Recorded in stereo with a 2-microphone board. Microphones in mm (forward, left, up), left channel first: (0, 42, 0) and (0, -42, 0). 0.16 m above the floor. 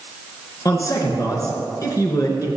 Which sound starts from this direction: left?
A man speaking, at 0.7 s.